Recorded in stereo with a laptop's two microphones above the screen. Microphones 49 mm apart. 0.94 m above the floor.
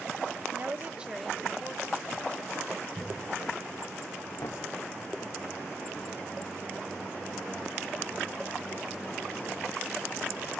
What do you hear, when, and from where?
0.5 s a woman speaking: 45° right (ahead or behind), 1.0 m; by 2.9 s 20° left (ahead or behind), 3 m
3.0 s a cough: 15° right (ahead or behind), 5.5 m
4.4 s knocking: 70° left (ahead or behind), 2 m